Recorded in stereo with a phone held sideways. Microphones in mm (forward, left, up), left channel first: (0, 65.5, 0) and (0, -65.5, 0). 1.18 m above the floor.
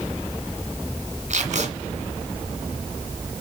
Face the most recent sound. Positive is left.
turn(degrees=-60)  # may be behind; listen again after turning